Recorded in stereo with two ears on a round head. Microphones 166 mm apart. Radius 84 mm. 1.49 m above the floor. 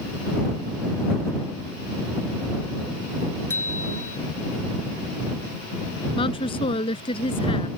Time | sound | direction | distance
3.5 | a bicycle bell | 15° left (ahead or behind) | ?
6.2 | a woman speaking | 30° left (ahead or behind) | ?